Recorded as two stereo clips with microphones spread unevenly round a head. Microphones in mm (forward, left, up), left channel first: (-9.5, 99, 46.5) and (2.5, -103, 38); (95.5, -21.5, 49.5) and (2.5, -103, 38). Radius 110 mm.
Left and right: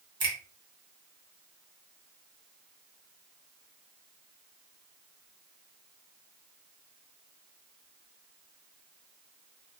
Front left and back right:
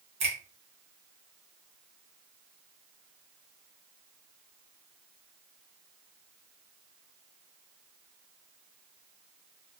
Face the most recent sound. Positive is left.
turn(degrees=-150)